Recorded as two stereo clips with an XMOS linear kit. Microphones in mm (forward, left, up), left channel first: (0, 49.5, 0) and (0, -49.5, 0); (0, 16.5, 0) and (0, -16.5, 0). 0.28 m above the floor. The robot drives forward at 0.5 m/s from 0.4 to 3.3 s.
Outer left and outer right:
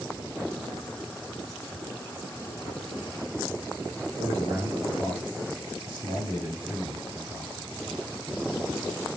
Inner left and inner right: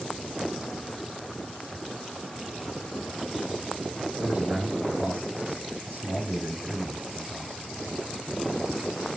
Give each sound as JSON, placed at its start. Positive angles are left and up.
{"t": 4.2, "sound": "a man speaking", "side_deg": -55, "distance_m": 4.0}